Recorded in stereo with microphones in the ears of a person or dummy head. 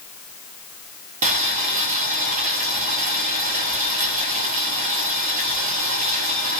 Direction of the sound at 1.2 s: 40° right (ahead or behind).